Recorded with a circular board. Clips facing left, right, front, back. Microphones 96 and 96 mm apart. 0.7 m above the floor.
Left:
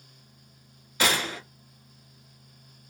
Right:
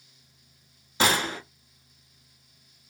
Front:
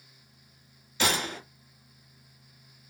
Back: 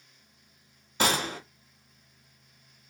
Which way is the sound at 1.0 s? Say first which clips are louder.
Right 2 dB, back 2 dB; 145° right.